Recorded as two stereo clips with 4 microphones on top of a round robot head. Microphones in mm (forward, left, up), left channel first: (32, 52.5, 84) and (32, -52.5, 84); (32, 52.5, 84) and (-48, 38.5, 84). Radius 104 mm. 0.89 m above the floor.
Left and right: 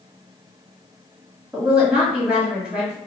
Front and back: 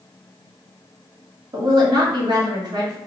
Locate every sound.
1.5 s a woman speaking: 170° right, 1.6 m